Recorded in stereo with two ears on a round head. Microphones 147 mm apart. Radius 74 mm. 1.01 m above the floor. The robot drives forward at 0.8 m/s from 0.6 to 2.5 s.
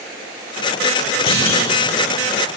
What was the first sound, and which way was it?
A clunk, 60° left (ahead or behind).